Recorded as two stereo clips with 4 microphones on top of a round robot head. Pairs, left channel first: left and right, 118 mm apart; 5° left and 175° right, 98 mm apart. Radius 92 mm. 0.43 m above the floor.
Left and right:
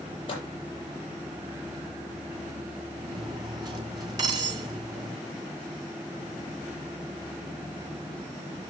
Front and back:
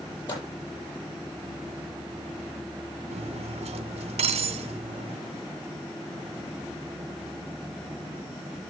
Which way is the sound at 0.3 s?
45° left.